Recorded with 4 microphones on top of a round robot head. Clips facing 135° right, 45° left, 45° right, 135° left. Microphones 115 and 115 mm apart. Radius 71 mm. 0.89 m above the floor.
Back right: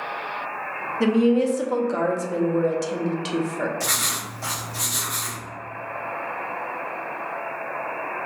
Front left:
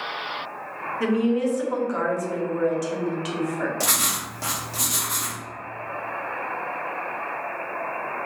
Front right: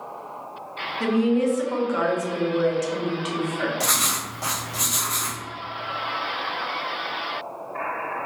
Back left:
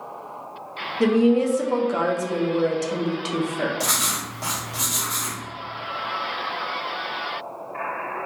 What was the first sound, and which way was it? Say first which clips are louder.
A woman speaking: back right 3 dB, back left 3 dB; 175° left.